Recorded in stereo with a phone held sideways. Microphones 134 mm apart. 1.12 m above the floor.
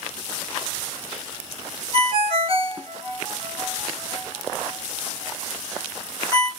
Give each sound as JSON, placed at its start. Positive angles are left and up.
{"t": 1.9, "sound": "a ringtone", "side_deg": -45, "distance_m": 2.5}